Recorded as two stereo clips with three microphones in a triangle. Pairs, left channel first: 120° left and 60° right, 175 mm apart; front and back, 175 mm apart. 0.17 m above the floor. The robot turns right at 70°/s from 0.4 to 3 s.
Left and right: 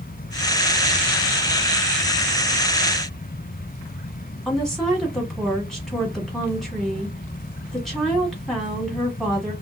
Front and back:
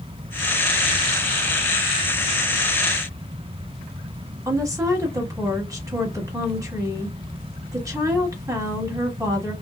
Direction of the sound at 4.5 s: 155° right.